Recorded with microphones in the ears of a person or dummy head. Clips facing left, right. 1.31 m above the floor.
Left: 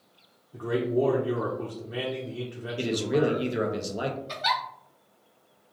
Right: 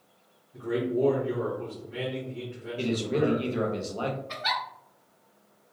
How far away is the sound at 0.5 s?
About 0.7 m.